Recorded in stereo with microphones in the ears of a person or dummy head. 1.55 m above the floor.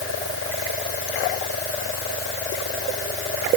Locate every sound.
Only background noise.